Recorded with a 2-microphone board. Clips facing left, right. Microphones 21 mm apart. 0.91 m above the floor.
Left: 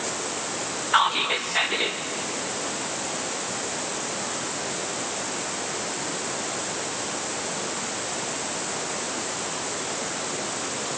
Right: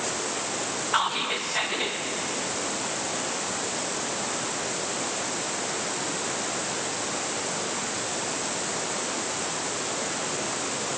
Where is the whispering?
20° left (ahead or behind), 0.6 m.